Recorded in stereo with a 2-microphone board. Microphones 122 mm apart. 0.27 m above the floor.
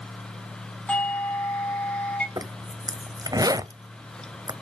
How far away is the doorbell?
About 3 m.